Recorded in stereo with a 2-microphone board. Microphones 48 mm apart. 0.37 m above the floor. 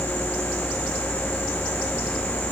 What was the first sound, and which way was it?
Only background noise.